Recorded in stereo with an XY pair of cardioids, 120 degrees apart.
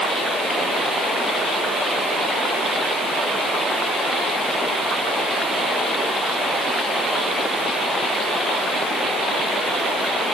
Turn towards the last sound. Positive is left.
No sound to turn to.